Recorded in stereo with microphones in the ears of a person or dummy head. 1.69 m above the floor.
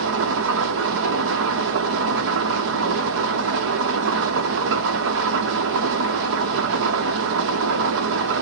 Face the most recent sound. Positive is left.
turn(degrees=-70)  # may be behind; listen again after turning